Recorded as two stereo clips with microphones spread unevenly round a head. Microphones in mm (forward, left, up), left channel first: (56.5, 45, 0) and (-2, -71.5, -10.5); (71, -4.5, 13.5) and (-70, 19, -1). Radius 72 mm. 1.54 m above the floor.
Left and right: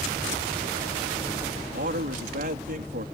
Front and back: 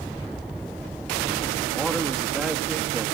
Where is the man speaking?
100° right.